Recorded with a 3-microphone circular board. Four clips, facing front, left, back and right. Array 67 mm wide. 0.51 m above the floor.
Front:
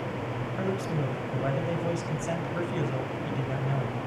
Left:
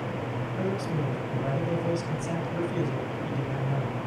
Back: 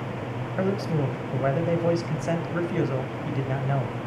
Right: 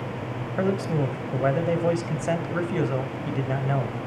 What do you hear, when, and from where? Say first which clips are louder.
0.6 s a man speaking: right 7 dB, back 5 dB; 120° right, 3 m